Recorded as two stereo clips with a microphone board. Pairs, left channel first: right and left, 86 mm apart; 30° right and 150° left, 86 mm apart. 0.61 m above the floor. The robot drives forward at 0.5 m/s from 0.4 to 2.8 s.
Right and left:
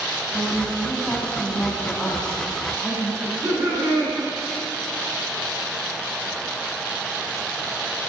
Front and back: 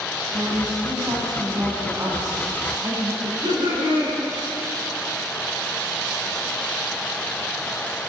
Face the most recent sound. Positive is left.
turn(degrees=150)